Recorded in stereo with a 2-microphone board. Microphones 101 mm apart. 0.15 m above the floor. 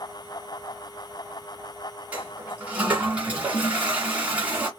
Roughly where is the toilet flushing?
Centre.